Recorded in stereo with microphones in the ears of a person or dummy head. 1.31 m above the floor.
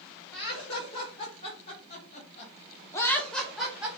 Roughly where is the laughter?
Left.